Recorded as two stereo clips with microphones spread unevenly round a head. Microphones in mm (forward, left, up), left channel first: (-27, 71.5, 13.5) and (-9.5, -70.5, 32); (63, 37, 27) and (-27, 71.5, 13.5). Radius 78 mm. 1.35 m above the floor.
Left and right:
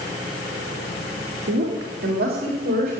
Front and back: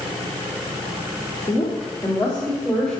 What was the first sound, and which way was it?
A woman speaking, 95° right.